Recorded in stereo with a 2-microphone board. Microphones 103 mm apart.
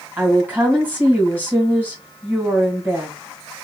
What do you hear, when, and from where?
0.2 s a woman speaking: 15° right (ahead or behind), 1.8 m